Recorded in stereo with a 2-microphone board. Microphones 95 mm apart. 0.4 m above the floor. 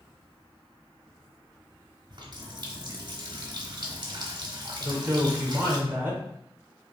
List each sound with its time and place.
2.1 s a running tap: 45° right (ahead or behind), 0.8 m
4.8 s a woman speaking: 20° right (ahead or behind), 1.2 m